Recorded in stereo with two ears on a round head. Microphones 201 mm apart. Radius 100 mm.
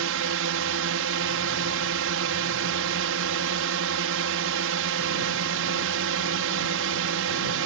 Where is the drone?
65° right (ahead or behind).